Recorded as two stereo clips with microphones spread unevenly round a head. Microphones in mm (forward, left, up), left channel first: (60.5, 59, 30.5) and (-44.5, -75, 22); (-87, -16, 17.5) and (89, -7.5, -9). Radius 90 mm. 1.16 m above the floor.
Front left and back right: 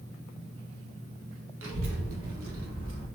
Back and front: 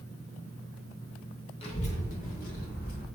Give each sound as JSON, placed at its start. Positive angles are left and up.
{"t": 1.6, "sound": "a child speaking", "azimuth_deg": -120, "distance_m": 1.1}